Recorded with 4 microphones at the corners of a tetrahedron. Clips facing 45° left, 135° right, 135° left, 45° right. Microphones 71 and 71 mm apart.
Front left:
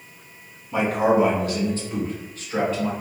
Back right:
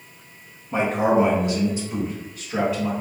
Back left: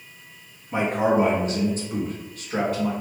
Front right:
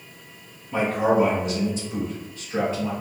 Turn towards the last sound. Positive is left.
turn(degrees=140)